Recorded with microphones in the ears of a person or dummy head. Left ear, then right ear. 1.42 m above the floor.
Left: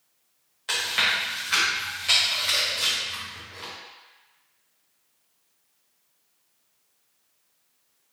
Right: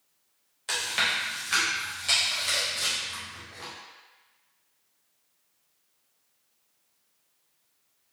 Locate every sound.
0.7 s chewing: centre (ahead or behind), 1.1 m